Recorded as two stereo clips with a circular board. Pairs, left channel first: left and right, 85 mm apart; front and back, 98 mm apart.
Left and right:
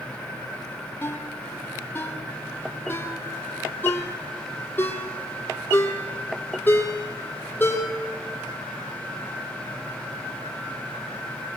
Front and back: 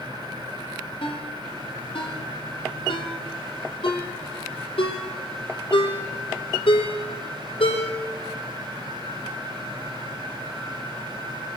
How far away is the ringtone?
About 5 m.